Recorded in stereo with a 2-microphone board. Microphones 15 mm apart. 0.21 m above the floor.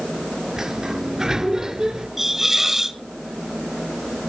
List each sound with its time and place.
0.6 s a sliding door: 40° right (ahead or behind), 2.5 m
2.2 s a hiss: 20° right (ahead or behind), 1.6 m